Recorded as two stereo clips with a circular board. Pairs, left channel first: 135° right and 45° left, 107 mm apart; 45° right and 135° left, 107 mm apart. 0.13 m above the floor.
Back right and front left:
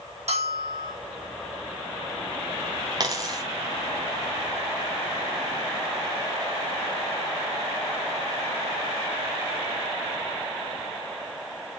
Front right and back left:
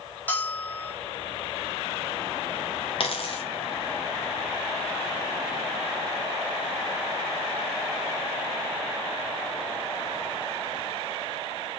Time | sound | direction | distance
0.3 | a bell | 30° left | 4 m
3.0 | a dropped coin | 10° right | 1.6 m